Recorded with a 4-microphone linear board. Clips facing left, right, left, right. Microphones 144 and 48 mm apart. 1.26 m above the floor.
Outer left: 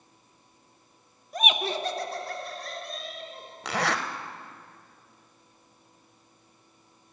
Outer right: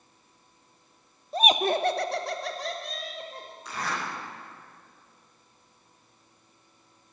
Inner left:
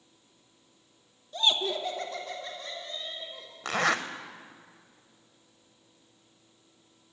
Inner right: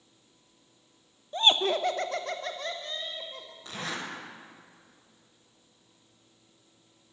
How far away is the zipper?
About 0.6 m.